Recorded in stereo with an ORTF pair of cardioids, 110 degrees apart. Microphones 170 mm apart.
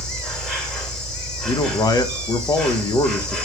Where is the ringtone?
I don't hear a ringtone.